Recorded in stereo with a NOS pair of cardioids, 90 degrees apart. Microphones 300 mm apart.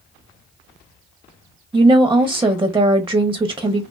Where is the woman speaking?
10° right, 0.6 m.